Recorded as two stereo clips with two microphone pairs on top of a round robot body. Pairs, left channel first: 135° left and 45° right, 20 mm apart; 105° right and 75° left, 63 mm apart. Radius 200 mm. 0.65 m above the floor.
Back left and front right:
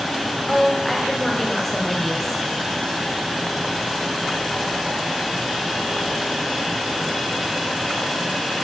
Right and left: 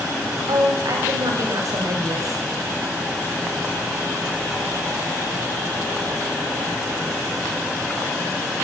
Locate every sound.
0.5 s a woman speaking: 55° left, 4 m